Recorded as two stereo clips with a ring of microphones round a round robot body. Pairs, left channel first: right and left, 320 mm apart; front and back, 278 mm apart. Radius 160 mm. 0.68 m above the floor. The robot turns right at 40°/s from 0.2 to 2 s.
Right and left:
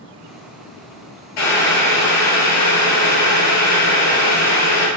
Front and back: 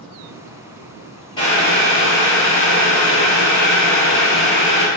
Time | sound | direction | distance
1.4 | boiling | 75° right | 2.5 m